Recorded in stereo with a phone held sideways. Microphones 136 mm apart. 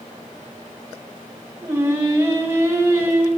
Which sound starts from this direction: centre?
Singing, at 1.6 s.